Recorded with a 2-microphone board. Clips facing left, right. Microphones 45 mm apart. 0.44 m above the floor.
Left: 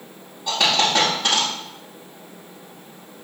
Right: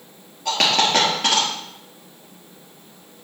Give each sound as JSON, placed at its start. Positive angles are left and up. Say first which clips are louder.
{"t": 0.5, "sound": "a dropped coin", "louder": "right 1 dB", "side_deg": -80, "distance_m": 3.5}